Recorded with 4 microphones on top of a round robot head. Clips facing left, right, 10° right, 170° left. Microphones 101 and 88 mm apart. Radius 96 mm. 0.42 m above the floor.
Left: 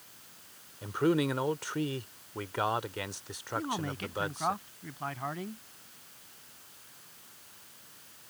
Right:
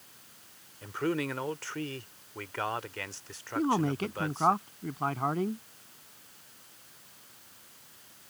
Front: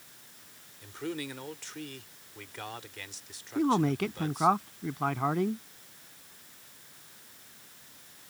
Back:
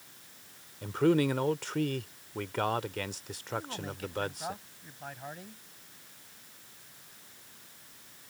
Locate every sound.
0.8 s a man speaking: 160° left
3.5 s a man speaking: 35° right